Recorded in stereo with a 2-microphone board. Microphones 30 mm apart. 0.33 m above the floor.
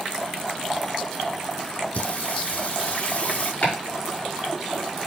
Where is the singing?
50° left (ahead or behind), 1.9 m.